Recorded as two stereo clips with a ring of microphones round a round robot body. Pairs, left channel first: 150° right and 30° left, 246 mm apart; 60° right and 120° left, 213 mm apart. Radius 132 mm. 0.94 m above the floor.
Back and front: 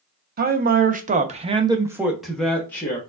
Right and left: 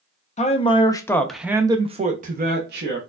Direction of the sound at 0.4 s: 10° right.